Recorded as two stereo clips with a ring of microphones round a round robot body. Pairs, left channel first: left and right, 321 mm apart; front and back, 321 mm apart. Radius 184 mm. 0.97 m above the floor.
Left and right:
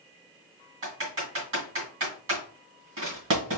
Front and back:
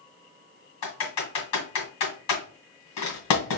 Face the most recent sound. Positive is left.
turn(degrees=-35)